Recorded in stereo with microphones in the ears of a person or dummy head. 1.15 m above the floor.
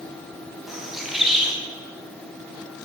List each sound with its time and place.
0.7 s a bird: 5° right (ahead or behind), 2.5 m